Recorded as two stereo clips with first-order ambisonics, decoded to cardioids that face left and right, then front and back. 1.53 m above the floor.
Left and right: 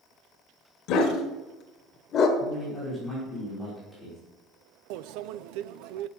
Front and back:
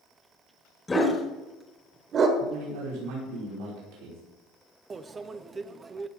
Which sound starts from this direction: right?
A microwave, at 4.9 s.